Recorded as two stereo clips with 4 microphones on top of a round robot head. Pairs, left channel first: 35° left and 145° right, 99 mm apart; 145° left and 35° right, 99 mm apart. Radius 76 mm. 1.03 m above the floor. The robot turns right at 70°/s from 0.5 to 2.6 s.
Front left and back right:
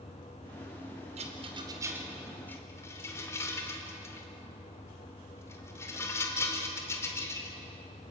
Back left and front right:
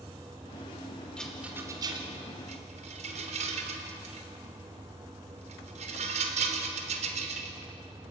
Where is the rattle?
135° right, 3 m; by 7.6 s 30° right, 3 m.